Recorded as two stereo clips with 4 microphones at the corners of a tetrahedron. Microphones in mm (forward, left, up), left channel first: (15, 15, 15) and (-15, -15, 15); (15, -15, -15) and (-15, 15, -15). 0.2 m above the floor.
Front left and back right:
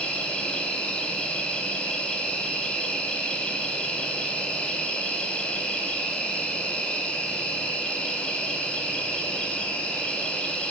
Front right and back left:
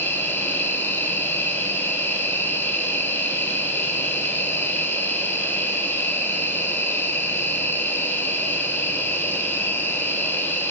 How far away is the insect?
About 1.5 m.